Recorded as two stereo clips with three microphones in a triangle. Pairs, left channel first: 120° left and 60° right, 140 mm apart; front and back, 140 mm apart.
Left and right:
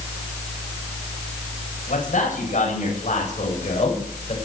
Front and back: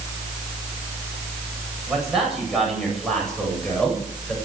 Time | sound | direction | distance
1.9 | a man speaking | 95° left | 9.5 m